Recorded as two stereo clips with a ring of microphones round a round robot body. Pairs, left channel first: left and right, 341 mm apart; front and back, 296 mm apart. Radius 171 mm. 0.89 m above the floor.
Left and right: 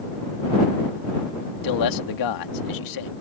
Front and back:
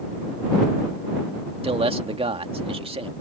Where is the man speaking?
110° left.